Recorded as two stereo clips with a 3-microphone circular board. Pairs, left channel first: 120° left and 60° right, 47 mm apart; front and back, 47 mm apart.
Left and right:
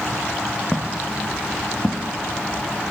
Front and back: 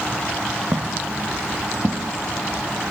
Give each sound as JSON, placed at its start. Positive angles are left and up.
{"t": 0.7, "sound": "footsteps", "azimuth_deg": -160, "distance_m": 2.5}